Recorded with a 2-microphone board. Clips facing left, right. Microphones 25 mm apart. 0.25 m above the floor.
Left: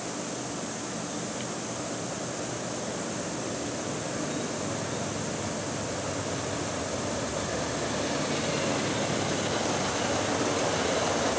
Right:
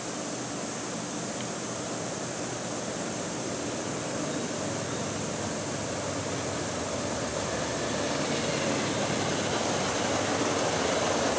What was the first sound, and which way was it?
Only background noise.